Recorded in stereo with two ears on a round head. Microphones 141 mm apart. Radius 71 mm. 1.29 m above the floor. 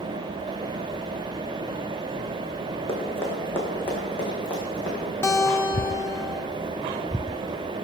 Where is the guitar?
20° left (ahead or behind), 0.8 m.